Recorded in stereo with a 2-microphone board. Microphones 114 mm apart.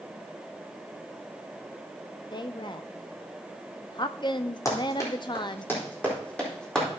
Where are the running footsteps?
30° left (ahead or behind), 4 m; by 6.9 s 5° left (ahead or behind), 4 m.